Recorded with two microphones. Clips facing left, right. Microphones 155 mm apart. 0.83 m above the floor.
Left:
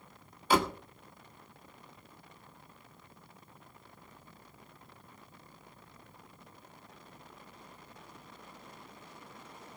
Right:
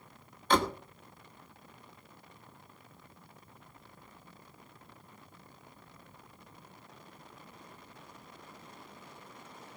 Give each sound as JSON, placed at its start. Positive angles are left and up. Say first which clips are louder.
{"t": 0.5, "sound": "a door slam", "louder": "even", "side_deg": 10, "distance_m": 1.5}